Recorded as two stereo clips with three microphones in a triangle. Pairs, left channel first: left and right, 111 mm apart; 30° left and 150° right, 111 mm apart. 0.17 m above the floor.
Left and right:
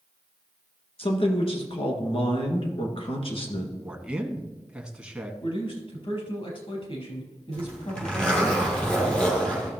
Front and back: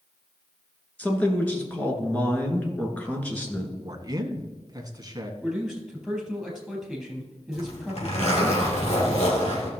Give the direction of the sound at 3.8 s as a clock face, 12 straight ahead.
5 o'clock.